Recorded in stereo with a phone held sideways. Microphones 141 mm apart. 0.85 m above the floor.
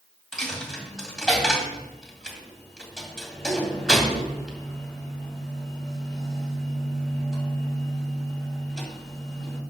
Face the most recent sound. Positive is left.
turn(degrees=5)  # may be behind; listen again after turning